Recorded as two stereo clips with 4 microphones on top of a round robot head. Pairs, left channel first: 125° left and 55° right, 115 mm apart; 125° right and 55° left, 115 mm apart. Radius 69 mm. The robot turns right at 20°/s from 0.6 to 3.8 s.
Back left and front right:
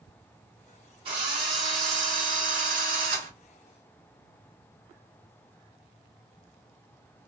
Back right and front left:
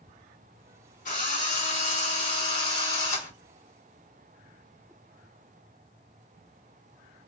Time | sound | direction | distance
1.1 | a drill | 105° right | 2.5 m